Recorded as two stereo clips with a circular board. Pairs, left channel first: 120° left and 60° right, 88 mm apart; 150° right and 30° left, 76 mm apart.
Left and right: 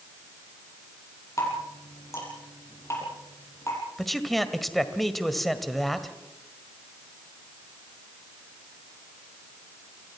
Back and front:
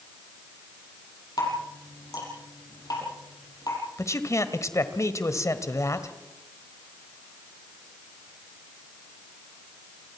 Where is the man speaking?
150° right, 1.6 m.